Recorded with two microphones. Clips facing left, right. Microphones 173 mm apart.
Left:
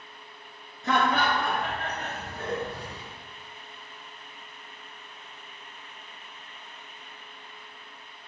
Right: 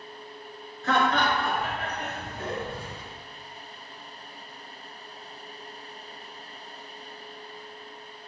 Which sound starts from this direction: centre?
Laughter, at 0.8 s.